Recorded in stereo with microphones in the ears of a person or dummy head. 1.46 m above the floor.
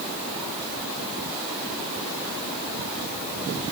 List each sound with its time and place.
Only background noise.